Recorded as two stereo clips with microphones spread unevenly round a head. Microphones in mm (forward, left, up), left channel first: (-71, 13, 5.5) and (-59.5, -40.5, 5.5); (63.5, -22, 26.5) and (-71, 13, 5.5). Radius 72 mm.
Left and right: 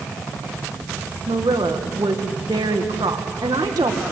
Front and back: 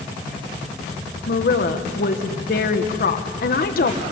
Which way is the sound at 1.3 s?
40° right.